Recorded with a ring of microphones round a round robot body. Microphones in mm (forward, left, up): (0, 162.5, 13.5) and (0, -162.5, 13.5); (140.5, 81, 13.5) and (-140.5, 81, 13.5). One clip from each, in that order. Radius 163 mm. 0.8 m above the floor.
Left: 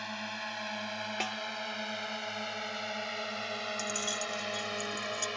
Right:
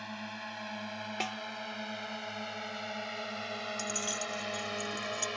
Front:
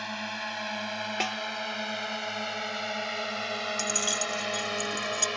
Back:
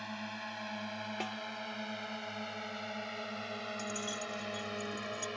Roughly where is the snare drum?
Ahead.